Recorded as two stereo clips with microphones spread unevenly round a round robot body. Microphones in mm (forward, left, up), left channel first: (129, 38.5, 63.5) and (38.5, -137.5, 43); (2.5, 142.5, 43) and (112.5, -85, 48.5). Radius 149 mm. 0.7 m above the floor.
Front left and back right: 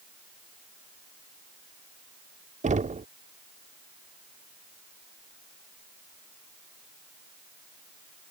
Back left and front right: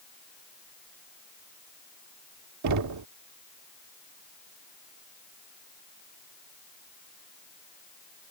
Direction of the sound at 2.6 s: 60° right.